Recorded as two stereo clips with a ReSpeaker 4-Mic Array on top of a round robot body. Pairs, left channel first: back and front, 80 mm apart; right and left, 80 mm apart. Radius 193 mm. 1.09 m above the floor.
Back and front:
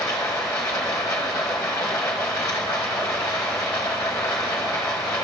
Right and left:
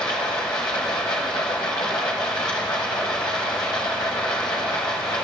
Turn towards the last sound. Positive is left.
turn(degrees=-125)